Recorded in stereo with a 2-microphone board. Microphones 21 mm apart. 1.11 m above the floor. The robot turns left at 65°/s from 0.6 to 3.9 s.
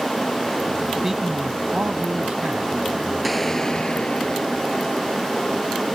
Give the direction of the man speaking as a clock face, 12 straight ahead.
12 o'clock.